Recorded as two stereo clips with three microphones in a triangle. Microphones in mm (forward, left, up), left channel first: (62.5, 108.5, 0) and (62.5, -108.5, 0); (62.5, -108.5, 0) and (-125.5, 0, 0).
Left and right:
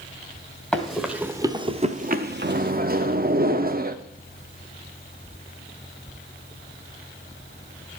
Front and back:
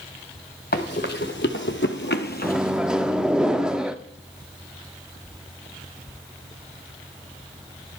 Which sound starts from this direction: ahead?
Running footsteps, at 0.7 s.